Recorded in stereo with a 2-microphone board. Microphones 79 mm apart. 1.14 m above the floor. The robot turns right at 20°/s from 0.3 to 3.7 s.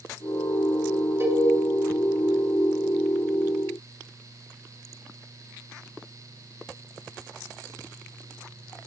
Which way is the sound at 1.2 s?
30° right (ahead or behind).